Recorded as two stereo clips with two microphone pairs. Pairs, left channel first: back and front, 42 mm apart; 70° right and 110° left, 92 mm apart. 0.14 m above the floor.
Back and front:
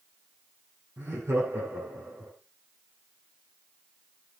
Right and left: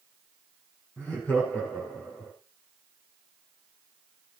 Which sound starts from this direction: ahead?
Laughter, at 1.0 s.